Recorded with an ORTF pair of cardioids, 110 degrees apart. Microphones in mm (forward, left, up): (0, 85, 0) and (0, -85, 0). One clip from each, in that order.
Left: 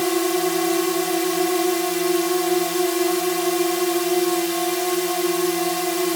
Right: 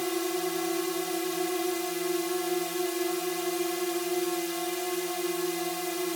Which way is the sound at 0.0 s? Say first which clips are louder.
Left 9 dB; 55° left.